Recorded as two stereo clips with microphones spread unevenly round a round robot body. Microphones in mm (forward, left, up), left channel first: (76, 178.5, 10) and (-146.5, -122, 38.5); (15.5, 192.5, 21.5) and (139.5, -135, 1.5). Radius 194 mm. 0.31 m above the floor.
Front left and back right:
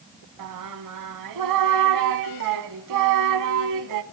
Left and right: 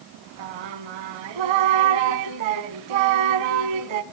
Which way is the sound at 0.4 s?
80° right.